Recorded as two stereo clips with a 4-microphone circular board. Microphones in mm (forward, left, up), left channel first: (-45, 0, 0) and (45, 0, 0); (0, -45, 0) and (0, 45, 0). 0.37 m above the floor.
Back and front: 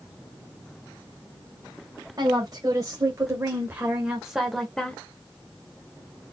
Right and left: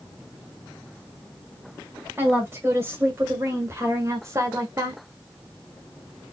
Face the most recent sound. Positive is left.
turn(degrees=110)